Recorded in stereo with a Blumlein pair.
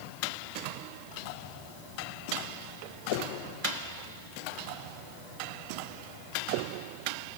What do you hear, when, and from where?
Only background noise.